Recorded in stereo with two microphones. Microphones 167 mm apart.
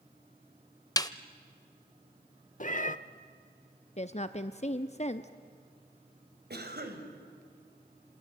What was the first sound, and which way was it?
A snare drum, 20° left (ahead or behind).